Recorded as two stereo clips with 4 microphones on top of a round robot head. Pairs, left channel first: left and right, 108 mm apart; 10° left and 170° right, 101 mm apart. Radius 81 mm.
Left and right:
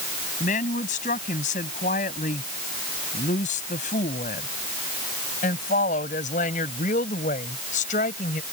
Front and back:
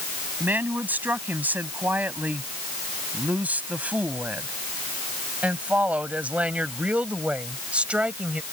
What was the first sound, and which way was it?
A woman speaking, 115° left.